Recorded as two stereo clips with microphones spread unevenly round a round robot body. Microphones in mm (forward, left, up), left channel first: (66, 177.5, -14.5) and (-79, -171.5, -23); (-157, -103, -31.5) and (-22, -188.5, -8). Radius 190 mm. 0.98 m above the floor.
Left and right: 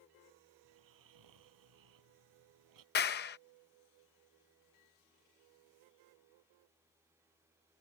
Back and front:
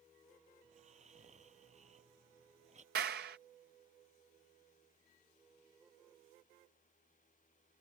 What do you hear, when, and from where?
0.6 s snoring: 75° right
3.0 s a clap: 5° left